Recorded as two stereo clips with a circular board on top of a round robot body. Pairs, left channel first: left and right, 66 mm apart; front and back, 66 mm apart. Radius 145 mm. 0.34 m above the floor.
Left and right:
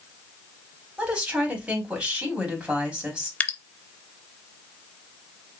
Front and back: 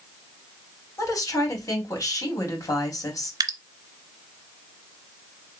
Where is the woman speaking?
20° right, 3 m.